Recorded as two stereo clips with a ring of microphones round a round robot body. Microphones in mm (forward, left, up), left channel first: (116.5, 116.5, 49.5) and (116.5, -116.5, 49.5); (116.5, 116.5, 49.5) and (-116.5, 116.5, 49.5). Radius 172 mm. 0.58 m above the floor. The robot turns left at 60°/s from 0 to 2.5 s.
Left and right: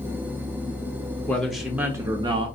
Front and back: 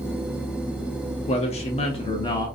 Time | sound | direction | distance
1.3 | a man speaking | 15° left | 0.7 m